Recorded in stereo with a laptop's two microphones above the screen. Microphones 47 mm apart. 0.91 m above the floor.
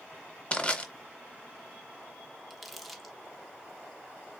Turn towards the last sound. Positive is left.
turn(degrees=0)  # may be behind; listen again after turning